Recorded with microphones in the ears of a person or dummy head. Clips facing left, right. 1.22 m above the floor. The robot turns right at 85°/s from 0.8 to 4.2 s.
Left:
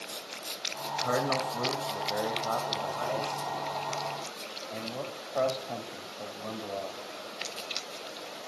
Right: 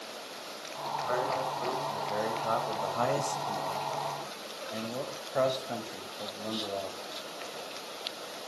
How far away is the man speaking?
About 4.5 m.